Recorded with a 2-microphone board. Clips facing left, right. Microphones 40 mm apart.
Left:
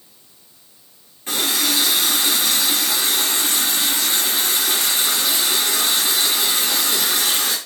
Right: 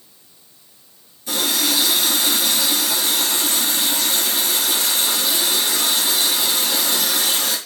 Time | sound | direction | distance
1.3 | a running tap | 40° left (ahead or behind) | 5 m